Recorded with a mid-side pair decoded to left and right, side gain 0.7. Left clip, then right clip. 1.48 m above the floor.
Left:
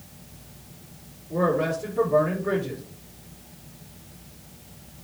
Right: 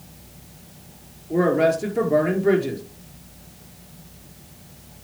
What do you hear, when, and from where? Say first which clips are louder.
1.3 s a man speaking: right 5 dB; 35° right, 5 m